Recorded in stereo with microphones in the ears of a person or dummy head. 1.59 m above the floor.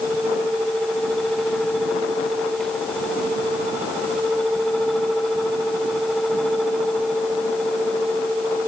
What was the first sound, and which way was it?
Only background noise.